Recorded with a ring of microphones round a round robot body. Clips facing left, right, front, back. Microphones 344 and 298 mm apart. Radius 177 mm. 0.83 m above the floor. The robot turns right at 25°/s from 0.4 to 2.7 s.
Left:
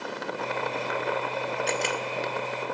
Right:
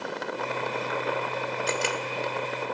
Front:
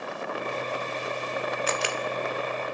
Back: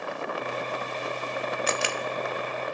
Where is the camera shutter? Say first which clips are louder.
Right 1 dB, even; 170° right, 0.6 m; by 2.0 s 165° right, 0.6 m.